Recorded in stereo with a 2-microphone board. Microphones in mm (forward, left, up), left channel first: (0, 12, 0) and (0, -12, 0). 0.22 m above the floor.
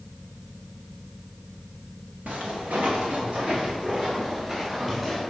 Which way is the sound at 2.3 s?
75° right (ahead or behind).